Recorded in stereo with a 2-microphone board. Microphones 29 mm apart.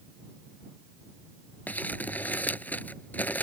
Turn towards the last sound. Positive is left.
turn(degrees=75)  # may be behind; listen again after turning